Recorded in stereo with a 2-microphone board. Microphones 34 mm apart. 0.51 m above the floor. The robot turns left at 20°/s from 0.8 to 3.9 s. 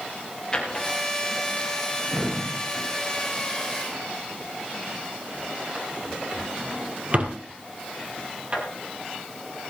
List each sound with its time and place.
0.5 s a drawer: 20° left (ahead or behind), 3.5 m; by 8.6 s 40° right (ahead or behind), 3.5 m